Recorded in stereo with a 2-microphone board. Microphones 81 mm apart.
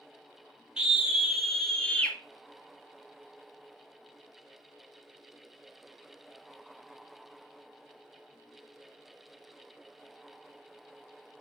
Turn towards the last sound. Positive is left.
turn(degrees=20)  # may be behind; listen again after turning